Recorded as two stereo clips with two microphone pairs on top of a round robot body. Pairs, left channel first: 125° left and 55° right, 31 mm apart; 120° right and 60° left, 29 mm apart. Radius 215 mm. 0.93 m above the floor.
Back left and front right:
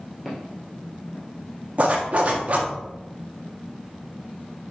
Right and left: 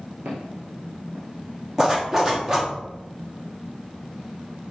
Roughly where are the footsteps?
Ahead left.